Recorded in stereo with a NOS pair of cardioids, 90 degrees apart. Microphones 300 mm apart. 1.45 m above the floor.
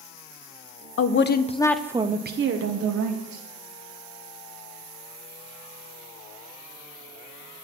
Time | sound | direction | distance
1.0 | a woman speaking | 50° left | 1.0 m